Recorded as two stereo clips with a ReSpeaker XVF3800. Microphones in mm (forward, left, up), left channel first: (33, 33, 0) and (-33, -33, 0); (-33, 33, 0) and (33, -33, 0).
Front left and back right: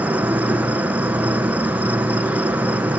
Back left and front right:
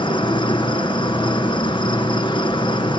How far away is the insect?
About 1.3 m.